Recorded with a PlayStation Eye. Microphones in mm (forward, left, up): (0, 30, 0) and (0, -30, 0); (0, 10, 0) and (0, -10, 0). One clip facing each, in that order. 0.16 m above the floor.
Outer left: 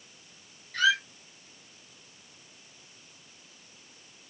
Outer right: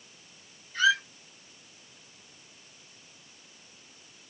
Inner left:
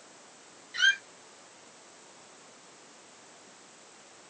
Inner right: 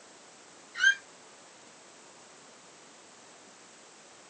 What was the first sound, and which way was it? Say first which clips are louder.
A squeak: outer right 1 dB, even; 70° left (ahead or behind).